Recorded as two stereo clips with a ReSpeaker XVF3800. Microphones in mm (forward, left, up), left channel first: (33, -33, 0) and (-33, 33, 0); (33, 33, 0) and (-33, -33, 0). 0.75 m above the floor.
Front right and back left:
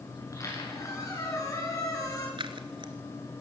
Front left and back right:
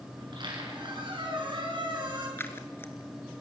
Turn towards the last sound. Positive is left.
turn(degrees=110)